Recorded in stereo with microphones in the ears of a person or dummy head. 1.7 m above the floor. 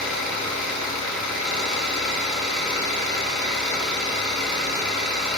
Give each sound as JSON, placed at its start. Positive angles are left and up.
{"t": 0.0, "sound": "an engine running", "side_deg": -5, "distance_m": 0.7}